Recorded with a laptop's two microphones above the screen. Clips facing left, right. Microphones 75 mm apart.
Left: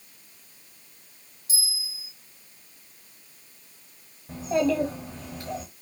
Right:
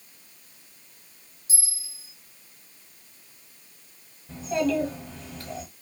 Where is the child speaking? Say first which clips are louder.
Left 1 dB; 30° left (ahead or behind), 1.0 m.